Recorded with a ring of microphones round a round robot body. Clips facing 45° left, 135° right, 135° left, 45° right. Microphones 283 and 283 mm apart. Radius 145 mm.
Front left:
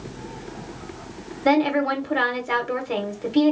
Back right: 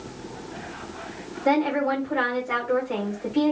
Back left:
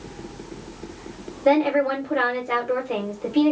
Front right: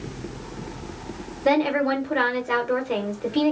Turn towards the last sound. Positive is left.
turn(degrees=30)